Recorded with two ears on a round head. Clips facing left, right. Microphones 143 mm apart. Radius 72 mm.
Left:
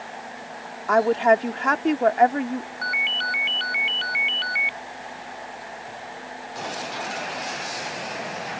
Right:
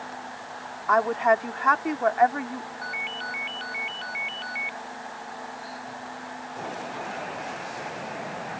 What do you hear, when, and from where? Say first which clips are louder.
0.9 s a woman speaking: left 4 dB; 35° left (ahead or behind)
2.8 s a ringtone: left 3 dB; 75° left (ahead or behind)